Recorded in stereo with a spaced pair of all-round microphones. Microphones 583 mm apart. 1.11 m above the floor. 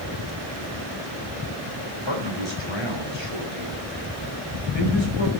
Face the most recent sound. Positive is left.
turn(degrees=50)  # may be behind; listen again after turning